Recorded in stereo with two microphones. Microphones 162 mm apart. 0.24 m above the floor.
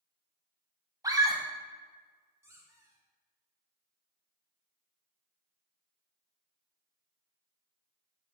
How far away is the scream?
About 1.2 m.